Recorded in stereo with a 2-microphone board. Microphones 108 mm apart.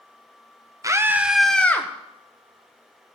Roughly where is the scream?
Right.